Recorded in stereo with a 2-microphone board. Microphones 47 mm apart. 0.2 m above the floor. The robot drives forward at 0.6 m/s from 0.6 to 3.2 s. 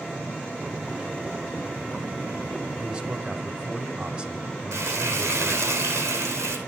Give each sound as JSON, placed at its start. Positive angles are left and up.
{"t": 2.8, "sound": "a man speaking", "side_deg": -25, "distance_m": 1.4}
{"t": 4.7, "sound": "frying", "side_deg": -85, "distance_m": 2.5}